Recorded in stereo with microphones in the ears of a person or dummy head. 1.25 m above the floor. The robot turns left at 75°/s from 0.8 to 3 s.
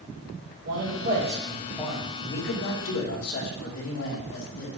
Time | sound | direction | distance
0.7 | a man speaking | 110° right | 2.5 m